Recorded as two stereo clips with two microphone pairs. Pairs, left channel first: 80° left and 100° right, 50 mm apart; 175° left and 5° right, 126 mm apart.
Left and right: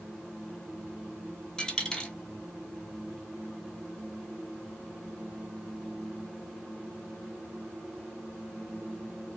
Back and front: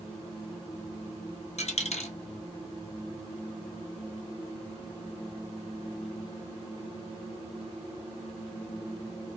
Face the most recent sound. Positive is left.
turn(degrees=150)